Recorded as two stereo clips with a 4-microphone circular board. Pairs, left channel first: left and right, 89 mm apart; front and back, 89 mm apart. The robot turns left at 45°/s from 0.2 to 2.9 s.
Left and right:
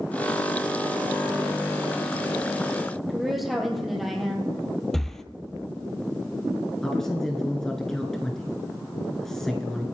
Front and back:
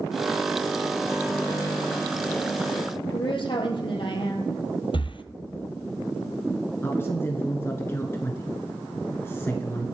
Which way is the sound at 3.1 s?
Straight ahead.